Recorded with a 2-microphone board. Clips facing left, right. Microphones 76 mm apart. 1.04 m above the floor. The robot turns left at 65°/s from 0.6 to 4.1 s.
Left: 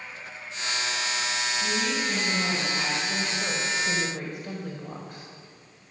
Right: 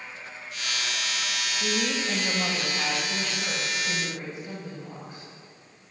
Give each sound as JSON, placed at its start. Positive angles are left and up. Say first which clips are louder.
{"t": 1.6, "sound": "a woman speaking", "louder": "right 2 dB", "azimuth_deg": -100, "distance_m": 5.5}